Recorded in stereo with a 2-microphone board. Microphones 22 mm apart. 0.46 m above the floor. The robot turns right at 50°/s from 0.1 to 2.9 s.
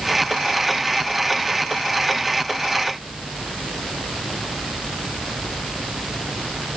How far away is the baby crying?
No baby crying in this recording.